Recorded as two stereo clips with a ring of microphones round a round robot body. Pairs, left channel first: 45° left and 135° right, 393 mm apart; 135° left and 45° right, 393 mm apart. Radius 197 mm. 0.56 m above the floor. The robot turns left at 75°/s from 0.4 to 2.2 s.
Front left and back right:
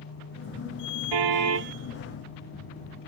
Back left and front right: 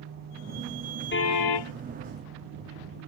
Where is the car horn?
160° right; by 1.7 s 155° left.